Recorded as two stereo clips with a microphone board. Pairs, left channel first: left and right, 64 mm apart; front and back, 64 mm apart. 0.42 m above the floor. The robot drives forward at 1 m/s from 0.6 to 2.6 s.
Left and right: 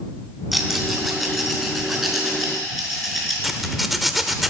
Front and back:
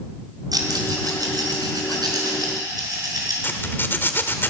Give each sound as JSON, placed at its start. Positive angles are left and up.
{"t": 0.5, "sound": "a rattle", "azimuth_deg": 180, "distance_m": 3.5}
{"t": 3.4, "sound": "a zipper", "azimuth_deg": -5, "distance_m": 1.5}